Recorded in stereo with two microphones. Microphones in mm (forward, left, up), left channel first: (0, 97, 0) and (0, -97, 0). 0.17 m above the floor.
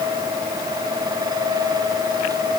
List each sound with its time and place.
Only background noise.